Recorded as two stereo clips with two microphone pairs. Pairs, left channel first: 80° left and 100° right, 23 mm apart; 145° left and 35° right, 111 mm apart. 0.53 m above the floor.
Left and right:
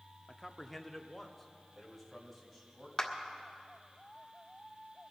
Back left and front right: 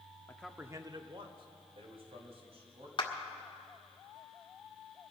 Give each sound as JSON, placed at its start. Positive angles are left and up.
{"t": 0.3, "sound": "a man speaking", "azimuth_deg": 145, "distance_m": 0.6}
{"t": 3.0, "sound": "a clap", "azimuth_deg": 145, "distance_m": 1.3}